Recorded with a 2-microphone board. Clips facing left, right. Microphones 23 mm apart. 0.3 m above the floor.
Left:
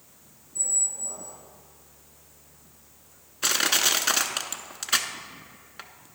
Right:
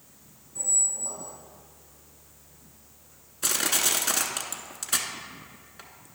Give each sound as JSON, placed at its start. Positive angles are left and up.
{"t": 0.6, "sound": "a squeak", "side_deg": -65, "distance_m": 2.0}
{"t": 3.4, "sound": "crushing", "side_deg": 40, "distance_m": 0.7}